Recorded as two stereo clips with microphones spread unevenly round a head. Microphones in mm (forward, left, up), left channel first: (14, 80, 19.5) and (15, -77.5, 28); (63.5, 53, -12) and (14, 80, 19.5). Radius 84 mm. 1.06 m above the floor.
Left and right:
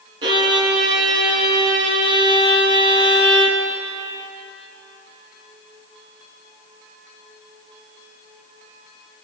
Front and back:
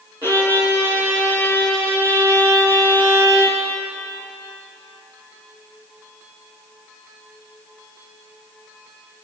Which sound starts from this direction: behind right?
A violin, at 0.2 s.